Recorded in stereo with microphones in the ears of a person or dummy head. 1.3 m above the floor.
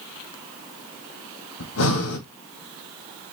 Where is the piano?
I don't hear a piano.